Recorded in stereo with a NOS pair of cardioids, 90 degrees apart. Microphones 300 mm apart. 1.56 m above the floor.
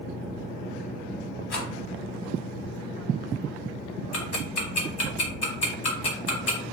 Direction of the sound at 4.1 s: 60° left.